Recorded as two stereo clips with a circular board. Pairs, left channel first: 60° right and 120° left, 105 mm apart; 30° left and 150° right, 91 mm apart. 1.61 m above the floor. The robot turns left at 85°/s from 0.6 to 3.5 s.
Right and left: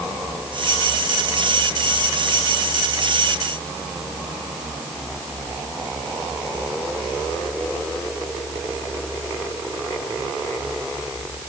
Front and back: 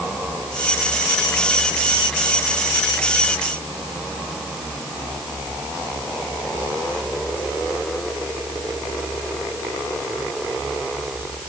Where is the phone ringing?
I don't hear a phone ringing.